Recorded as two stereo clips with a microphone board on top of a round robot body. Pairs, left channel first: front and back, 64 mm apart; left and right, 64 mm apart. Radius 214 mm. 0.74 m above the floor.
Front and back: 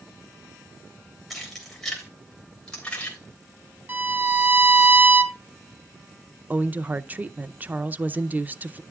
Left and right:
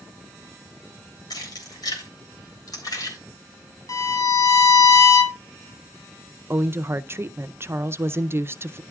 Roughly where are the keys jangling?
Left.